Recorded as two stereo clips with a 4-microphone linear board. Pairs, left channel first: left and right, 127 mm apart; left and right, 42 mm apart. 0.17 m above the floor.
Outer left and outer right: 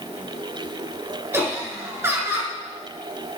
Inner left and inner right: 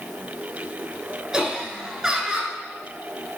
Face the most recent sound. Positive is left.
turn(degrees=-20)  # may be behind; listen again after turning